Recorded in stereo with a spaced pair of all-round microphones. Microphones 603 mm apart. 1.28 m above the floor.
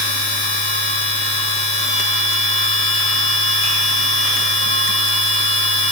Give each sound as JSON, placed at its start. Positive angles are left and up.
{"t": 0.0, "sound": "a machine running", "side_deg": -20, "distance_m": 1.5}